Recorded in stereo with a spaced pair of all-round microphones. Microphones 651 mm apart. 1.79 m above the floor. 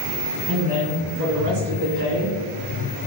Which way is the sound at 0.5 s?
10° right (ahead or behind).